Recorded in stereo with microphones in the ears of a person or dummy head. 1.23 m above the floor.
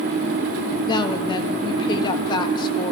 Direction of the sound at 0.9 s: 25° left (ahead or behind).